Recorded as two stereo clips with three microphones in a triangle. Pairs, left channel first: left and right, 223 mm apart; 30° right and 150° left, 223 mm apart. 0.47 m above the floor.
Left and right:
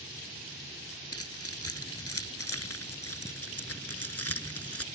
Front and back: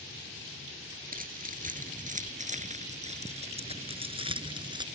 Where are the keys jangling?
100° left; by 4.9 s 80° left.